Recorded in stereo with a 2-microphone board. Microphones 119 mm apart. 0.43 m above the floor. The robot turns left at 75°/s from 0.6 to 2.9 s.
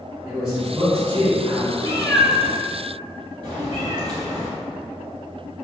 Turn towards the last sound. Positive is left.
turn(degrees=-45)  # may be behind; listen again after turning